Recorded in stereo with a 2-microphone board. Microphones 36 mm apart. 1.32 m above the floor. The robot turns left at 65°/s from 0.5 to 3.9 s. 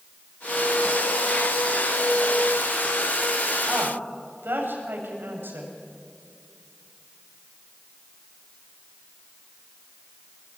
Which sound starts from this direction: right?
A woman speaking, at 3.7 s.